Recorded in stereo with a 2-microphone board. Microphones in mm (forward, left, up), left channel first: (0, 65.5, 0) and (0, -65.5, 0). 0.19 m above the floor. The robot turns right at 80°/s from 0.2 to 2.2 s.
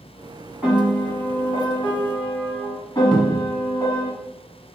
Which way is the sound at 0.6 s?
Centre (ahead or behind).